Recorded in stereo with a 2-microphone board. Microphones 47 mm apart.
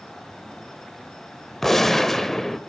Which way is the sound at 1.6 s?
5° left (ahead or behind).